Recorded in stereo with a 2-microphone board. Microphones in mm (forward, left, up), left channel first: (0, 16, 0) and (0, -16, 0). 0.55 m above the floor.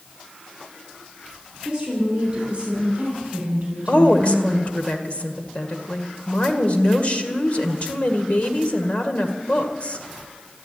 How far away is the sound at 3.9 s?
About 1.8 m.